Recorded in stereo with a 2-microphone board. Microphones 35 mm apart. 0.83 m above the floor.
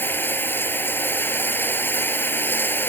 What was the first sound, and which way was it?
Running water, 80° left.